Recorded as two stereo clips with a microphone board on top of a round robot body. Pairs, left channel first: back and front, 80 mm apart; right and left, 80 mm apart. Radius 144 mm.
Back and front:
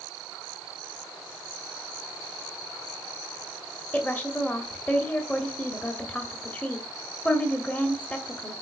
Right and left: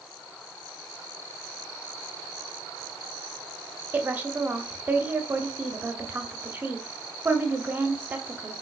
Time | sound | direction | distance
3.9 | a woman speaking | 130° left | 1.4 m